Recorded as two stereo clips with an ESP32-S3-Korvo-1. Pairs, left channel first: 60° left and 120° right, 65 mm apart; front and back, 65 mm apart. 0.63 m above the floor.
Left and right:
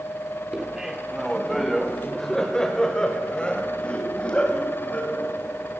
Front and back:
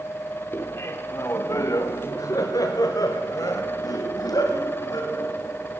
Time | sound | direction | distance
0.5 | laughter | 45° right | 1.3 m